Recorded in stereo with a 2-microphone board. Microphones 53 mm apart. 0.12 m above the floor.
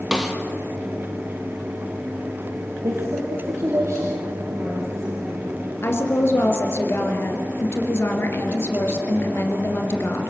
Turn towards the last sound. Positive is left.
turn(degrees=50)  # may be behind; listen again after turning